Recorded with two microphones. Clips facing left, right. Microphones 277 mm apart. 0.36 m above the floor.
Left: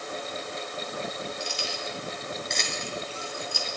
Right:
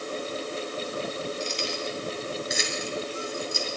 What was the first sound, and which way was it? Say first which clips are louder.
Keys jangling: right 4 dB; 10° left (ahead or behind).